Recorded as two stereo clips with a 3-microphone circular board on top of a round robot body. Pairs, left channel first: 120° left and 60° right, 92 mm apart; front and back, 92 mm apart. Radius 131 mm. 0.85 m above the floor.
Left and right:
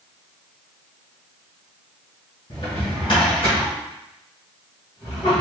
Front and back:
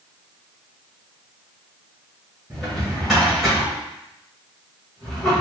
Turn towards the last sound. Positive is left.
turn(degrees=90)